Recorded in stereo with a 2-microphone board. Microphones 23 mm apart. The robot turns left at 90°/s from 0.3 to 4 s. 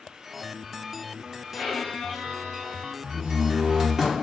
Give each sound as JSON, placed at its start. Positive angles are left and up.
{"t": 1.5, "sound": "a violin", "azimuth_deg": 55, "distance_m": 1.8}
{"t": 3.0, "sound": "a door slam", "azimuth_deg": -80, "distance_m": 0.8}